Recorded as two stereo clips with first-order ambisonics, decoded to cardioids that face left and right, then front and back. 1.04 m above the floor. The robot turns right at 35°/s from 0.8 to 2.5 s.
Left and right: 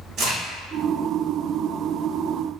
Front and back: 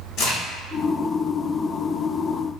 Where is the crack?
45° right, 1.2 m.